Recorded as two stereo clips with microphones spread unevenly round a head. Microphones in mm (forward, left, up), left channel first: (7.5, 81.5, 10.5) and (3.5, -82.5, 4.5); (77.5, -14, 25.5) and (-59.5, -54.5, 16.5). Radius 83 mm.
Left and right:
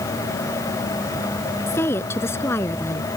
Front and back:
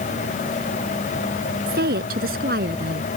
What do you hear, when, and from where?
1.7 s a woman speaking: 165° left